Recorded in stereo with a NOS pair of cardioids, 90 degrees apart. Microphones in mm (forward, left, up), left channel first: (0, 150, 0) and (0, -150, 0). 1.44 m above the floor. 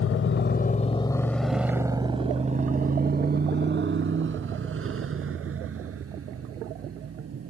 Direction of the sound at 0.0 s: 50° left.